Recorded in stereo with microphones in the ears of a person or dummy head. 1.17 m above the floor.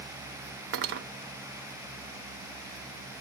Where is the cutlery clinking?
50° right (ahead or behind), 0.7 m.